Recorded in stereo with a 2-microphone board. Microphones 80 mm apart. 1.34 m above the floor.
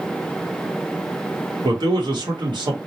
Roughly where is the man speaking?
Right.